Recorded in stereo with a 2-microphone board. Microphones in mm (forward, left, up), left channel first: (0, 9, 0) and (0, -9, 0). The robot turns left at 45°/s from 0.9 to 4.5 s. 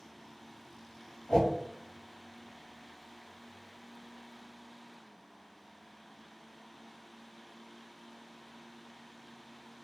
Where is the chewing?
I don't hear chewing.